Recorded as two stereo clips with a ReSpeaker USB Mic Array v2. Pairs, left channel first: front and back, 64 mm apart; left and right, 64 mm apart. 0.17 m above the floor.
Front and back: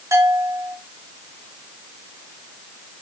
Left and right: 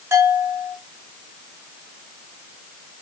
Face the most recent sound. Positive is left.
turn(degrees=-135)